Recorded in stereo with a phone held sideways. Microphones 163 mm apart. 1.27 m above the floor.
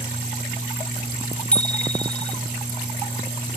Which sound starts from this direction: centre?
A bicycle bell, at 1.5 s.